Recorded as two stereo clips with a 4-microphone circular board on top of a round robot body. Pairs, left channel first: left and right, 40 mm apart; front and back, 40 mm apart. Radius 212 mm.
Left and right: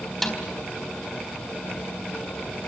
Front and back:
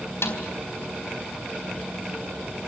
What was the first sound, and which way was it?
A snare drum, 5° left.